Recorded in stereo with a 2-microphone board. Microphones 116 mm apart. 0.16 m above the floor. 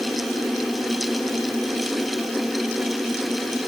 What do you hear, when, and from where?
Only background noise.